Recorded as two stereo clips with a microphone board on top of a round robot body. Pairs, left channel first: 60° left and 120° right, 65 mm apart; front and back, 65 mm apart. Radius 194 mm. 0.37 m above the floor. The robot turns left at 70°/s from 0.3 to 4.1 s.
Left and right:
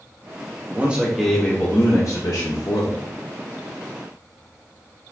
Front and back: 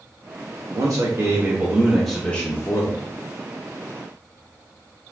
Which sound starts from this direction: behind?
A man speaking, at 0.7 s.